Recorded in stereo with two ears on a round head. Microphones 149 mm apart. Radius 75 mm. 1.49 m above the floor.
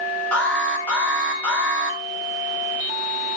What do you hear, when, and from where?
0.3 s an alarm: 5° left (ahead or behind), 6 m